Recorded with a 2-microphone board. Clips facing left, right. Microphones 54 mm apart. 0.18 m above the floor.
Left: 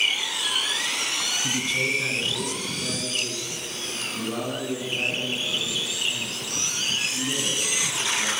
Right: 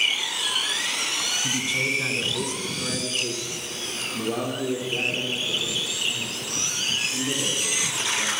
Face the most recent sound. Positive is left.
turn(degrees=-75)  # may be behind; listen again after turning